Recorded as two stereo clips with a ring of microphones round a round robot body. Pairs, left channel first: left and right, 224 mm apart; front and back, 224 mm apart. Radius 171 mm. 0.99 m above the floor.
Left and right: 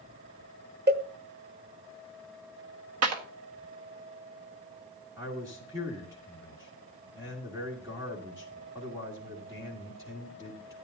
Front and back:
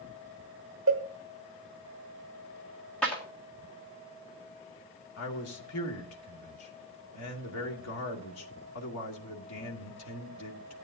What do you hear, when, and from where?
0.9 s a cowbell: 130° right, 1.2 m
3.0 s a clap: 85° right, 1.7 m
5.2 s a man speaking: 10° right, 2 m